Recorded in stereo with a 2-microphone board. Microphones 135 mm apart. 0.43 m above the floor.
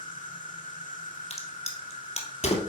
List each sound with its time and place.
0.0 s an insect: 80° left, 1.0 m
1.3 s a crack: 50° left (ahead or behind), 1.4 m